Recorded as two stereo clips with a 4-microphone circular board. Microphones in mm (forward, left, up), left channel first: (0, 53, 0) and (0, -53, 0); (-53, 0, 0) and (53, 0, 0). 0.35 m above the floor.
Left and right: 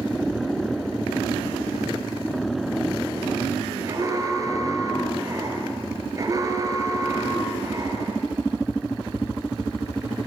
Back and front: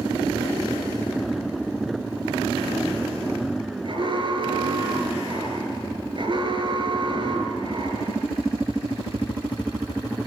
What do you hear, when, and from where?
3.8 s an alarm: 35° right, 4.5 m